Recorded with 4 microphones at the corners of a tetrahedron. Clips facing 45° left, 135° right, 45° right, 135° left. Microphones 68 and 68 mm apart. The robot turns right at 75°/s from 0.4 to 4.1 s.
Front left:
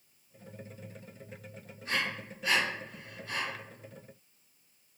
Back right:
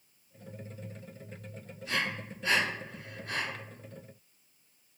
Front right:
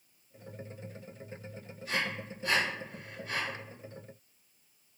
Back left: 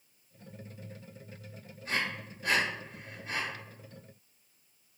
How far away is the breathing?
About 1.6 m.